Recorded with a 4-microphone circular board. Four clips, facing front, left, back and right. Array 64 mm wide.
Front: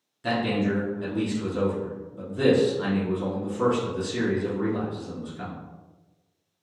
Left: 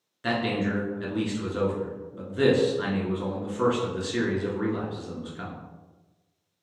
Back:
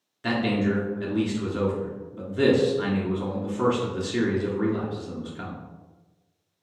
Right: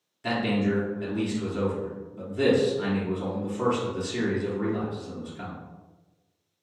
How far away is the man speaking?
About 1.6 m.